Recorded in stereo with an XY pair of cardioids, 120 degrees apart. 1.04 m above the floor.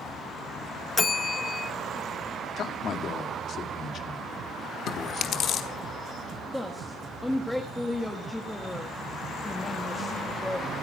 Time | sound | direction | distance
1.0 | a bell | 25° left | 0.6 m
2.6 | a man speaking | 50° left | 2 m
4.9 | chewing | 60° left | 1.3 m
6.5 | a woman speaking | 10° left | 1.5 m